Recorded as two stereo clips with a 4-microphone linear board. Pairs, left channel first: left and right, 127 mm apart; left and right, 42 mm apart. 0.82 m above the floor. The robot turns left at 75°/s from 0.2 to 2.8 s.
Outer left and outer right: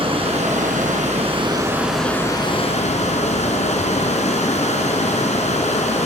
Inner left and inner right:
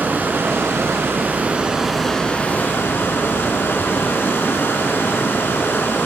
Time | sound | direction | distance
0.0 | running water | 50° right | 3.5 m